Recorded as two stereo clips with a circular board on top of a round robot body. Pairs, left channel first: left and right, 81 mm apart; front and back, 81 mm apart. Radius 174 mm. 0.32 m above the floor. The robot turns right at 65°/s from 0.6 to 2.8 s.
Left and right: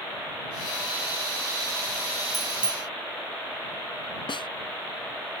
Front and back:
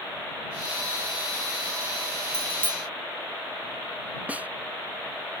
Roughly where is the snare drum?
Left.